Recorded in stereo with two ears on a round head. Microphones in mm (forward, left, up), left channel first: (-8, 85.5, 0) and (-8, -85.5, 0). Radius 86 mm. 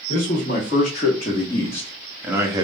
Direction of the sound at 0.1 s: 45° left (ahead or behind).